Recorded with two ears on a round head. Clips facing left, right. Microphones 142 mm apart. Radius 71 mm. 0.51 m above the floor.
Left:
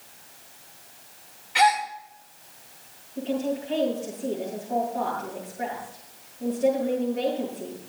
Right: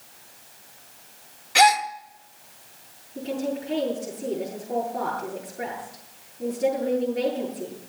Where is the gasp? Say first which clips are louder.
Right 2 dB; 55° right (ahead or behind), 1.0 m.